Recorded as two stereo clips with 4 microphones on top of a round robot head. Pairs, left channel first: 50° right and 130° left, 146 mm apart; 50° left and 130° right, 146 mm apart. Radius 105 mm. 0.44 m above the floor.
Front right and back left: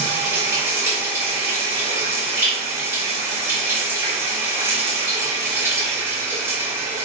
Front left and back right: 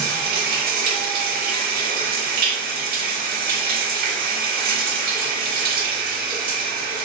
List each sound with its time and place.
0.0 s running water: 155° right, 1.1 m